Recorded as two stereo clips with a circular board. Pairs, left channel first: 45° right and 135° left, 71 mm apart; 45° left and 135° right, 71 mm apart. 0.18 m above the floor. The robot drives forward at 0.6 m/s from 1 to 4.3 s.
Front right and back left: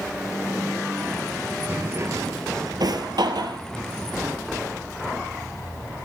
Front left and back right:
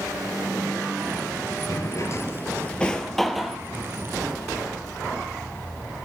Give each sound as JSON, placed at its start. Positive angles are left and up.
{"t": 1.7, "sound": "a drawer", "azimuth_deg": 75, "distance_m": 0.8}